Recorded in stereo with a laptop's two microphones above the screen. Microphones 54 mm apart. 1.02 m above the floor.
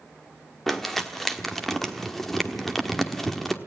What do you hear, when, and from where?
0.7 s crumpling: 5° left (ahead or behind), 1.2 m